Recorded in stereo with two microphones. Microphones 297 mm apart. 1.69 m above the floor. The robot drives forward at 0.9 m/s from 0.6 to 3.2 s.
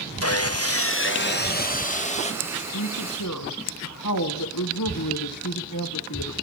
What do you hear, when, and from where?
0.2 s sawing: 55° left (ahead or behind), 1.0 m; by 2.3 s 20° left (ahead or behind), 2 m
2.4 s a woman speaking: 75° left (ahead or behind), 1.7 m; by 6.3 s 80° left, 1.6 m